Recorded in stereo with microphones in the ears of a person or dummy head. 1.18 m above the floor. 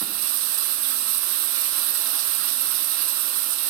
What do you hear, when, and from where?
0.0 s running water: 75° right (ahead or behind), 1.0 m